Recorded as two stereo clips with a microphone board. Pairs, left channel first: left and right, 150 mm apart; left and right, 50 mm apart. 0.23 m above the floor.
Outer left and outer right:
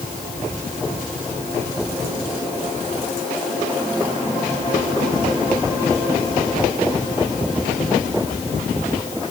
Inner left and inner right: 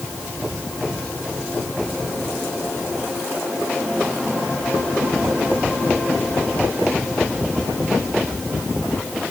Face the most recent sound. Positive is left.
No sound to turn to.